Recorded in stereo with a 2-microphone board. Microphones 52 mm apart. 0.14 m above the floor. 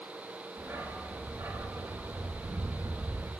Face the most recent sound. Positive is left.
turn(degrees=-85)